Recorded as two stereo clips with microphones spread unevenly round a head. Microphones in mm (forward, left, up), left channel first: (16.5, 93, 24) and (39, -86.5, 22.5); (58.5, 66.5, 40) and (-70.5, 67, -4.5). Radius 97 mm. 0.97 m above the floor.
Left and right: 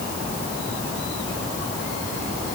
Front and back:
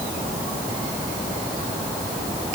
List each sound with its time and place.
Only background noise.